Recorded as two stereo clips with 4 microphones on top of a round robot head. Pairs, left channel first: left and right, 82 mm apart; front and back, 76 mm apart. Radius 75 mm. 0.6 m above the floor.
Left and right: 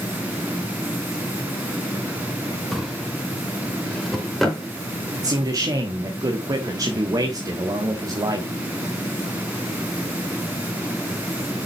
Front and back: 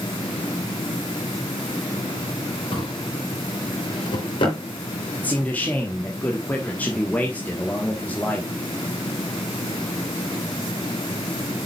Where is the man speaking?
65° right, 1.3 m.